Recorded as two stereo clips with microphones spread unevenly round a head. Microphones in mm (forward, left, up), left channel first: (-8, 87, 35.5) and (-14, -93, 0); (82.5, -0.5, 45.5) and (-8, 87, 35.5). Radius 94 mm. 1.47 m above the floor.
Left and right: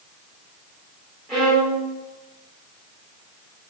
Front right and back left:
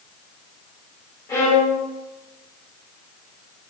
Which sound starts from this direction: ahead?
A violin, at 1.3 s.